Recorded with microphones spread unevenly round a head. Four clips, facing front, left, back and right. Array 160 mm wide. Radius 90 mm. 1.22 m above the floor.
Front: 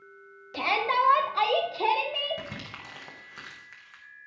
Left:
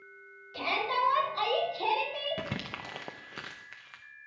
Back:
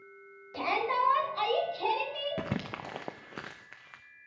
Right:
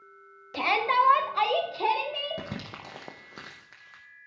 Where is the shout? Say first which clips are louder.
Right 6 dB, front 3 dB; 60° right, 1.8 m; by 2.4 s 10° right, 3 m.